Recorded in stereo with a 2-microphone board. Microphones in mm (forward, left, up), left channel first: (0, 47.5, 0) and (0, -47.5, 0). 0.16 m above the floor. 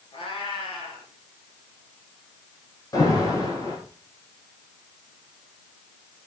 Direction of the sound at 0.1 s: 65° left (ahead or behind).